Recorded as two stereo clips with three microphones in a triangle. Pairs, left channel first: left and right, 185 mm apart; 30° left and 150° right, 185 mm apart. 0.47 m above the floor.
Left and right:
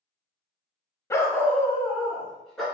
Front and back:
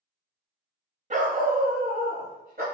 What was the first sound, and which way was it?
A dog barking, 165° left.